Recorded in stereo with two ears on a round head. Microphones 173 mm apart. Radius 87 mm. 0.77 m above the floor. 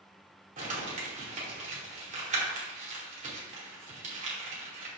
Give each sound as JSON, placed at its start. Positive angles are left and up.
{"t": 0.6, "sound": "crumpling", "side_deg": -40, "distance_m": 2.5}